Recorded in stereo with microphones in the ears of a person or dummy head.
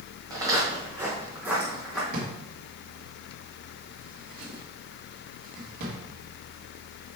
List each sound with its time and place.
0.3 s footsteps: 25° right (ahead or behind), 3.5 m; by 2.0 s 5° right (ahead or behind), 3 m
2.1 s a drawer: 55° right (ahead or behind), 1.7 m